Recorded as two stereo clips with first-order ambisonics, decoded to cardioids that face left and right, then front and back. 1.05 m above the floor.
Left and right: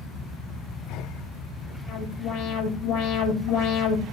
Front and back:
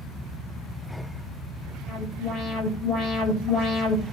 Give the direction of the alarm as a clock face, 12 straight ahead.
10 o'clock.